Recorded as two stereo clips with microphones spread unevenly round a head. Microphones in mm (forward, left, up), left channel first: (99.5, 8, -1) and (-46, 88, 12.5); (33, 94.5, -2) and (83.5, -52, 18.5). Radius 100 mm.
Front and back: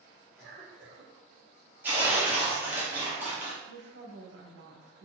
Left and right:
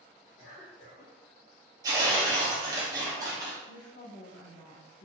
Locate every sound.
0.4 s a cough: 100° left, 1.6 m
1.8 s tearing paper: 130° right, 0.6 m
3.7 s a woman speaking: 135° left, 0.9 m